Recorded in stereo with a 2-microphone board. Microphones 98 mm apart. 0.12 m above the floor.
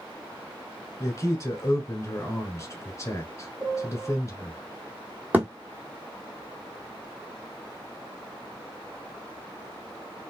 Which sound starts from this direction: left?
A man speaking, at 1.0 s.